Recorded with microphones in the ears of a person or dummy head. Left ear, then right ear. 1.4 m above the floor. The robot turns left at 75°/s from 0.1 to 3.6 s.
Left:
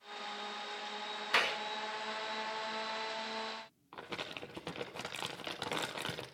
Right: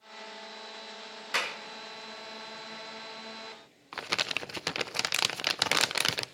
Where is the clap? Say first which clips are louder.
Even; 10° left (ahead or behind), 2 m; by 1.6 s 25° left (ahead or behind), 2 m.